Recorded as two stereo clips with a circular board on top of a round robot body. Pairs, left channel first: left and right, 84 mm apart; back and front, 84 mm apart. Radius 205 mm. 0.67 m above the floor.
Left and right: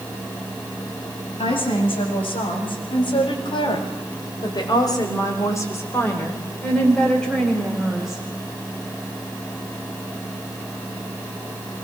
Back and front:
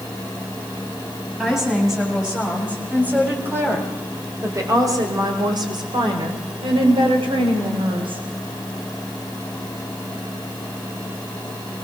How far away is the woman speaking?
About 7 m.